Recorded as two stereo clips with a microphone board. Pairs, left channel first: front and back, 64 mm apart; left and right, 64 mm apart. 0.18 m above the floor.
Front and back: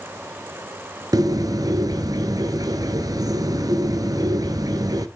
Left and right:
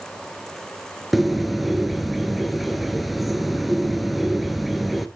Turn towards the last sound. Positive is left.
turn(degrees=180)